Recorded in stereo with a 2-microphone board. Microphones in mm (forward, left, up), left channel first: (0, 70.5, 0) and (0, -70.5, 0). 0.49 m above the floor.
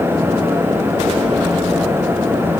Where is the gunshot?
No gunshot in this recording.